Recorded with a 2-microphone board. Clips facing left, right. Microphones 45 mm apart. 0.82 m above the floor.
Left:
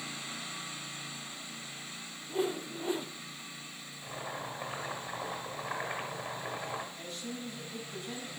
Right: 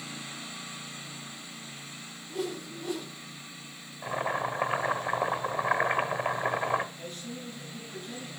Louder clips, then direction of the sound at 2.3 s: Left 2 dB; 25° left (ahead or behind).